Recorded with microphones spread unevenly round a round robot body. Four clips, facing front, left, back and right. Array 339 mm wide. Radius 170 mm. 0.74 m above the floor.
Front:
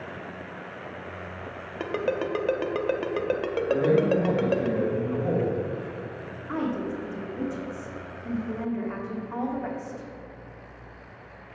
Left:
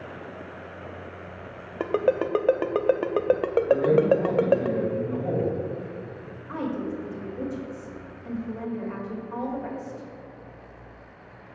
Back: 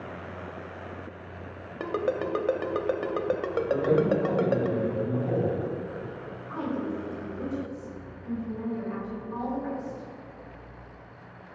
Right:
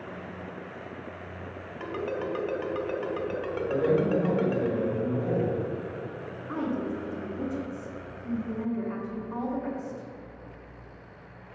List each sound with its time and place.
1.8 s a ringtone: 85° left, 0.6 m
3.7 s a man speaking: 30° right, 3 m
6.5 s a woman speaking: 25° right, 2 m